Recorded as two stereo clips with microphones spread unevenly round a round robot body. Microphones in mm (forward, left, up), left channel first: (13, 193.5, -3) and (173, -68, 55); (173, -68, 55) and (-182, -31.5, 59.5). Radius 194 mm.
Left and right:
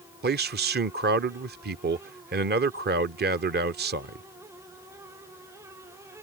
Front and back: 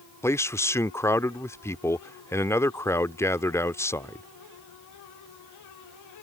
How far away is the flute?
No flute in this recording.